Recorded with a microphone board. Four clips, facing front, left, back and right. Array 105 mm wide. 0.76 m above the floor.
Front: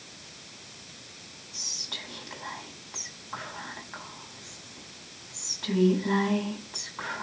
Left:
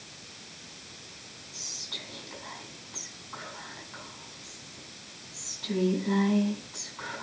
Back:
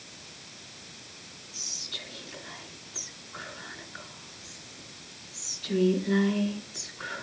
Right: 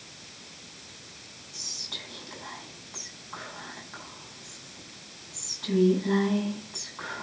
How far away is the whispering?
About 6.5 m.